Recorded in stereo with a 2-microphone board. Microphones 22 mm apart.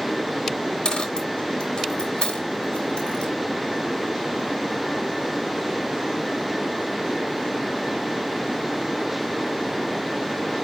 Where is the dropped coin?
45° left (ahead or behind), 2.5 m.